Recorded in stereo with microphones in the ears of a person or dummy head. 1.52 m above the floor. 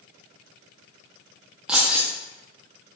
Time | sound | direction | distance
1.7 | keys jangling | 5° right (ahead or behind) | 0.7 m